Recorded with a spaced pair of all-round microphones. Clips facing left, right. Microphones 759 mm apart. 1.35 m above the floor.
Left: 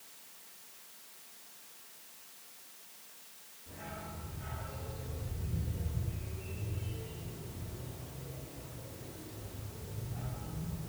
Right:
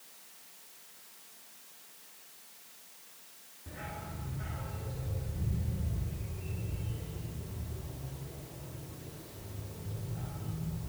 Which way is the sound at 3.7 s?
70° right (ahead or behind).